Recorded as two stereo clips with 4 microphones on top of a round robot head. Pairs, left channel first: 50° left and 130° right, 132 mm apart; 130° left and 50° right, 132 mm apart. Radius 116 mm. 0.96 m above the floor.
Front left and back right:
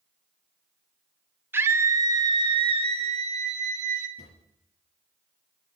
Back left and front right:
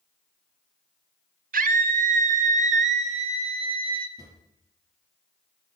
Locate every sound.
1.5 s a scream: 55° right, 1.6 m; by 4.1 s 105° right, 1.8 m
4.2 s a drawer: 15° left, 5.5 m